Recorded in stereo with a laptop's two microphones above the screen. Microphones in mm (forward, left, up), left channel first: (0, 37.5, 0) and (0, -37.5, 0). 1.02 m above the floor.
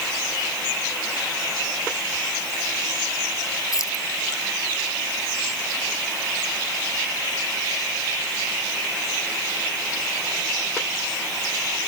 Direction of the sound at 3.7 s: 45° left (ahead or behind).